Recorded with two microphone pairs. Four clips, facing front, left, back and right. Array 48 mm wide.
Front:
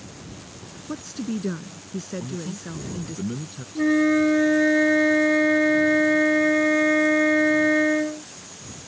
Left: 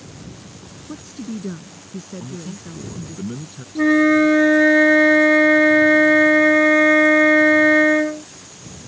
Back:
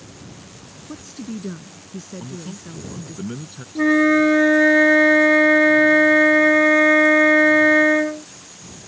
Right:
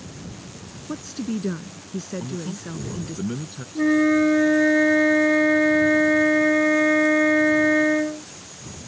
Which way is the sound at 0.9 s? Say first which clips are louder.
Right 3 dB, front 3 dB; 35° right.